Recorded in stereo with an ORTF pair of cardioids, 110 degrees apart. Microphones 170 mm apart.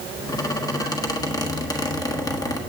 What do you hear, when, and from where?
0.3 s a squeak: 20° left, 1.3 m